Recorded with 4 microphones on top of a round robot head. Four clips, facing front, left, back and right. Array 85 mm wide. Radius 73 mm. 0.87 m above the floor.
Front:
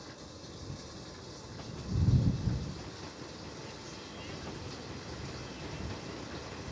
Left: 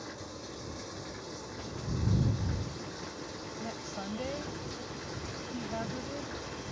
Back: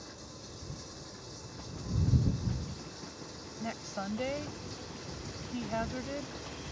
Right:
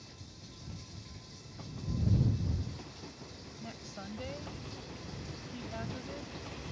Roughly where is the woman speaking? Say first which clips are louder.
Left 5 dB, back 8 dB; behind.